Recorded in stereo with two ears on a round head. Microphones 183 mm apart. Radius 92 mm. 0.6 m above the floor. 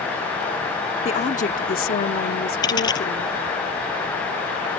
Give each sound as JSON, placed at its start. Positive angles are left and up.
{"t": 1.1, "sound": "a woman speaking", "side_deg": 35}
{"t": 2.6, "sound": "a dropped coin", "side_deg": 20}